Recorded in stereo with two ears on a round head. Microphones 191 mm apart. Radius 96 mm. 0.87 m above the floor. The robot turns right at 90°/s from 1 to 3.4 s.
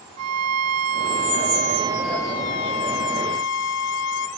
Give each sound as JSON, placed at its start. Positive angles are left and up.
{"t": 0.2, "sound": "a violin", "azimuth_deg": -95, "distance_m": 1.8}